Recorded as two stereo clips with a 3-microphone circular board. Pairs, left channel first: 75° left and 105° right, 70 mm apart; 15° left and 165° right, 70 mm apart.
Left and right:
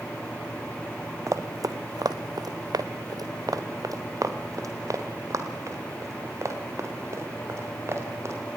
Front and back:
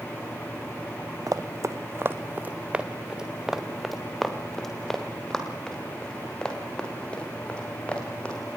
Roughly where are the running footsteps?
Behind right.